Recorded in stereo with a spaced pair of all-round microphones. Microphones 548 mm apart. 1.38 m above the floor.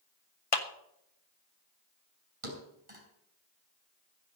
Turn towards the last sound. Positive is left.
turn(degrees=-75)  # may be behind; listen again after turning